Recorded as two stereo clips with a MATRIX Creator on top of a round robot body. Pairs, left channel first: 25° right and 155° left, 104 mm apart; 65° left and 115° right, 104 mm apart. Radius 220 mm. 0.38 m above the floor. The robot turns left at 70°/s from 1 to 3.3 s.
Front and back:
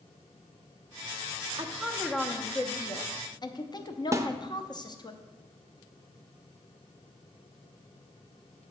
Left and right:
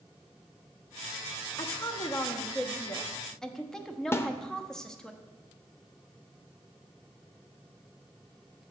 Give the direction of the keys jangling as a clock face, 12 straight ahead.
No keys jangling in this recording.